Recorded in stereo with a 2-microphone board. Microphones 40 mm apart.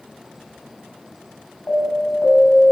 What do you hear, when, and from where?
1.7 s an alarm: 60° left (ahead or behind), 6 m